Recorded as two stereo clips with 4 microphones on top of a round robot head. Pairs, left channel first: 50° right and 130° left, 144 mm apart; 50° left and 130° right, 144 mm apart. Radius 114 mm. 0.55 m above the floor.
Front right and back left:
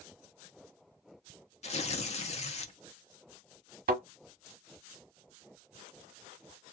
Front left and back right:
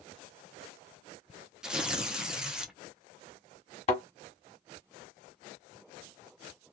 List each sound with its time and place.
1.6 s tearing paper: 45° right, 1.0 m
3.9 s a thud: 100° left, 1.1 m